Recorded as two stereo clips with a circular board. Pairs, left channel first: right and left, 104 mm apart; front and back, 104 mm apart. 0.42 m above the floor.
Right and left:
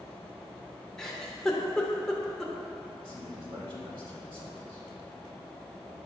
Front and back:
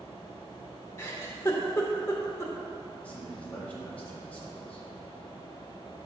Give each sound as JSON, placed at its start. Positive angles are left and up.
{"t": 1.0, "sound": "a giggle", "azimuth_deg": -15, "distance_m": 0.9}
{"t": 3.0, "sound": "a man speaking", "azimuth_deg": 75, "distance_m": 2.0}